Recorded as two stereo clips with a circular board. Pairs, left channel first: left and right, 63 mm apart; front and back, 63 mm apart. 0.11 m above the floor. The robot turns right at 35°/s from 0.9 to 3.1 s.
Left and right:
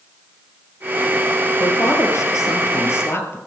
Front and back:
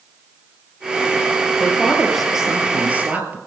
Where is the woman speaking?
75° left, 2.5 m; by 3.4 s 125° left, 2.5 m.